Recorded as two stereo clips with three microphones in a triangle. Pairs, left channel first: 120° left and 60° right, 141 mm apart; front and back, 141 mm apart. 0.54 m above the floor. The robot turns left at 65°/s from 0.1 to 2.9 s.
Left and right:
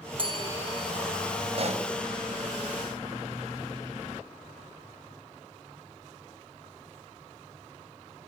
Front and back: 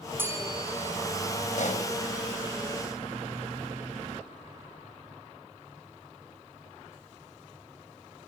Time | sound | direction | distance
0.2 | a bell | 105° right | 3 m
1.6 | a pop | 15° right | 2.5 m